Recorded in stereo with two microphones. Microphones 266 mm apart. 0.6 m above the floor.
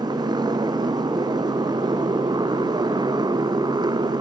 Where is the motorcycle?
15° right (ahead or behind).